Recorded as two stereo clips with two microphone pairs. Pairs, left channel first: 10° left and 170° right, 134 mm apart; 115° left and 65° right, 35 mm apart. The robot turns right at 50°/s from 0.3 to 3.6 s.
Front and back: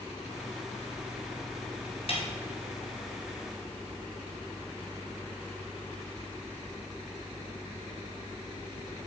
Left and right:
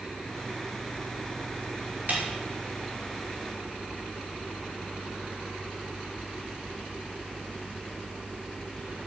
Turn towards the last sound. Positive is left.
turn(degrees=50)